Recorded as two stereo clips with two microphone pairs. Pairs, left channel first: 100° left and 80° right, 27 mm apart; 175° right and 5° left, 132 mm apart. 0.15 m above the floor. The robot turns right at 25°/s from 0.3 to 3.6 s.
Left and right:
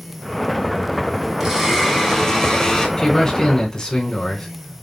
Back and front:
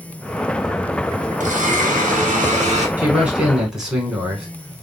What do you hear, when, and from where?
1.4 s a blender: 5° right, 1.7 m; by 2.9 s 35° left, 1.7 m
3.0 s a man speaking: 70° left, 1.6 m; by 4.5 s 85° left, 1.6 m